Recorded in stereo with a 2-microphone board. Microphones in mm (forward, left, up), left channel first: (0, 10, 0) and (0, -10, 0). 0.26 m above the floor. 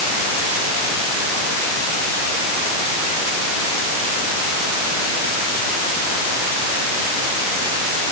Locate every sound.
Only background noise.